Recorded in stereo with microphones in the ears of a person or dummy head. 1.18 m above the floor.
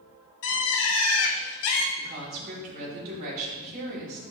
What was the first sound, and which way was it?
A bird, 70° left (ahead or behind).